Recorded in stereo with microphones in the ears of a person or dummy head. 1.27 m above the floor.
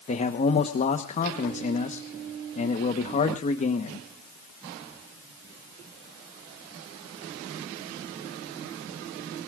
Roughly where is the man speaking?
Left.